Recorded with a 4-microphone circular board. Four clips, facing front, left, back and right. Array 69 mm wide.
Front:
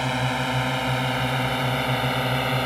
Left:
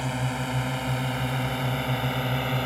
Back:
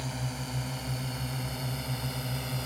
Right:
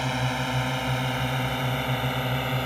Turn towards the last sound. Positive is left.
turn(degrees=0)